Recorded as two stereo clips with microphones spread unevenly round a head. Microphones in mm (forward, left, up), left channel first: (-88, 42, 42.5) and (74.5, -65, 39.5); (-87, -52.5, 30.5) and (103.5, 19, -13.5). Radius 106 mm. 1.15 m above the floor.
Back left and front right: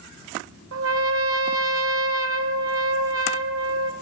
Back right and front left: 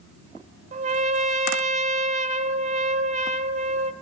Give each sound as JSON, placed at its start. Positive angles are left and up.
{"t": 0.7, "sound": "a trumpet", "azimuth_deg": -40, "distance_m": 1.3}